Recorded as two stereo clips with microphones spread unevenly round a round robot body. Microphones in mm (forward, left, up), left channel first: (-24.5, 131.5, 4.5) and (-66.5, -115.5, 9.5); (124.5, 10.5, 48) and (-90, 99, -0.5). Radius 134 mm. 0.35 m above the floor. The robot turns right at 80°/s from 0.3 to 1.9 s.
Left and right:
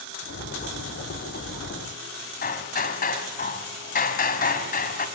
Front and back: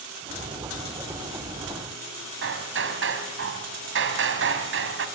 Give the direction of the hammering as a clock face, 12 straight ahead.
8 o'clock.